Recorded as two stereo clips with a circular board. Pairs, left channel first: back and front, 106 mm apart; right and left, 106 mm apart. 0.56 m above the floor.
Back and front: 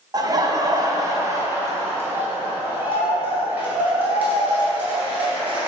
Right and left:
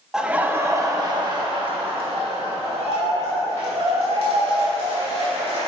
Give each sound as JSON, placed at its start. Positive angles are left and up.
{"t": 0.1, "sound": "laughter", "azimuth_deg": 10, "distance_m": 0.8}